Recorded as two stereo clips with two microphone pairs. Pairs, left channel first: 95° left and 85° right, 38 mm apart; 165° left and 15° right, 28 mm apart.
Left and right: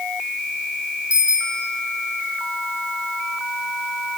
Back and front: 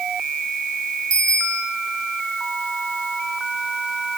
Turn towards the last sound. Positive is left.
turn(degrees=-145)